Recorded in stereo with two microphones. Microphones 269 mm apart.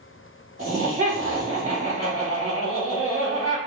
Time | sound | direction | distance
0.6 | laughter | 30° right (ahead or behind) | 1.3 m